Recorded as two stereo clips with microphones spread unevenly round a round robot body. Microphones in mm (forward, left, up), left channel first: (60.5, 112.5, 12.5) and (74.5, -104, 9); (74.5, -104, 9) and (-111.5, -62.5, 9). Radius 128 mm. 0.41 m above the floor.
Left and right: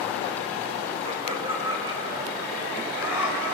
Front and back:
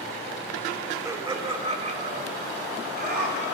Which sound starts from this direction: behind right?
Laughter, at 1.1 s.